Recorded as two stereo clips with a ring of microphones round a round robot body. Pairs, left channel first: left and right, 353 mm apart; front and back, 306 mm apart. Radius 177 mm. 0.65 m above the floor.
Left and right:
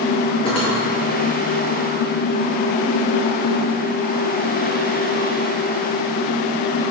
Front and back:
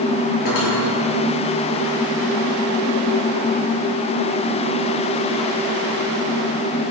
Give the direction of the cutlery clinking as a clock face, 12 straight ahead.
12 o'clock.